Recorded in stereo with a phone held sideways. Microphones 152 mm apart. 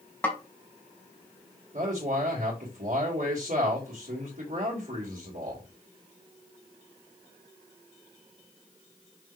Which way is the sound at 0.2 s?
15° left (ahead or behind).